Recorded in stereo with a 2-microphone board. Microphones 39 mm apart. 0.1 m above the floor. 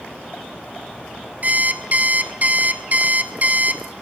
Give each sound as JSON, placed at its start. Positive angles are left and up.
{"t": 1.4, "sound": "an alarm clock", "side_deg": -45, "distance_m": 1.1}